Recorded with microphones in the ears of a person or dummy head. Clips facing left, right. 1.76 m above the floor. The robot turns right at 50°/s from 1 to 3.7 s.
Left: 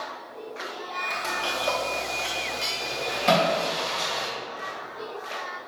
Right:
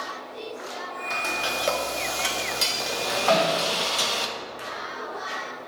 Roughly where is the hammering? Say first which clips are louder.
Even; left.